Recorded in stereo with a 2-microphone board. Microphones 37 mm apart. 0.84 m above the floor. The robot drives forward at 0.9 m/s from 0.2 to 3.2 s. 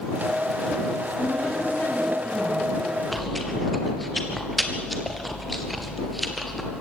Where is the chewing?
Centre (ahead or behind), 2.5 m.